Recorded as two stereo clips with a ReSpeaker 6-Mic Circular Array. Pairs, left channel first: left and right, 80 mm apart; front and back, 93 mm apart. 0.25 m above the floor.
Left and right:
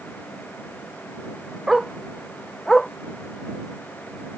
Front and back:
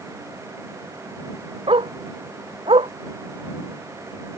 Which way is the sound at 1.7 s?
Straight behind.